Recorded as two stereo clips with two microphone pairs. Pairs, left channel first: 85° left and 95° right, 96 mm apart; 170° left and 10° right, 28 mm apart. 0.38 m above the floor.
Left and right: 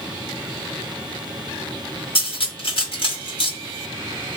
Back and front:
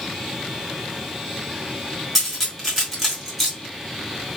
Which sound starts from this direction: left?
Cutlery clinking, at 2.1 s.